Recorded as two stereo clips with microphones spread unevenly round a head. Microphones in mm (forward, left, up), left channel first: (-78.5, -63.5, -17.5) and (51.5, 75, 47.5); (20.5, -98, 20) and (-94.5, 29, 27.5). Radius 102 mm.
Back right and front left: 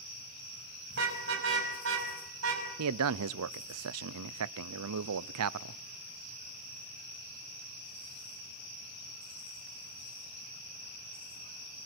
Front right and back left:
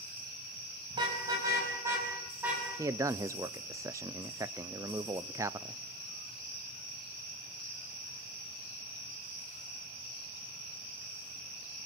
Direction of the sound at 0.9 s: 65° left.